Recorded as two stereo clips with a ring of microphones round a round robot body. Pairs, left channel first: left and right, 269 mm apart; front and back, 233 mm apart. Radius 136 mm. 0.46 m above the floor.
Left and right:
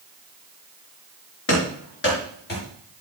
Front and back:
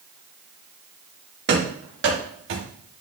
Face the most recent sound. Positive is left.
turn(degrees=145)